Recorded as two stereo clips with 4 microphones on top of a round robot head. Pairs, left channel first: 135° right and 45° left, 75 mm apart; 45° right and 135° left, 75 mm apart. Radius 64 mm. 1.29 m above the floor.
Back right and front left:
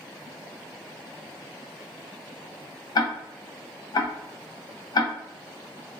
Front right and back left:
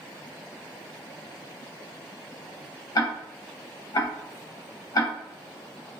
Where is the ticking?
90° right, 0.7 m.